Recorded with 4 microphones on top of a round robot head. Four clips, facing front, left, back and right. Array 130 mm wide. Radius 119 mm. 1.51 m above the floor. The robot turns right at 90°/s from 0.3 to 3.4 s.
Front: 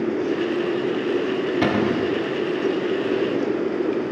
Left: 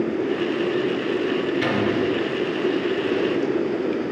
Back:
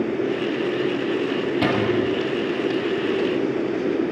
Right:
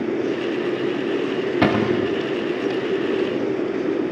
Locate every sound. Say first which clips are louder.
1.6 s a cupboard door: right 3 dB, even; 80° right, 1.1 m; by 2.1 s 40° right, 1.1 m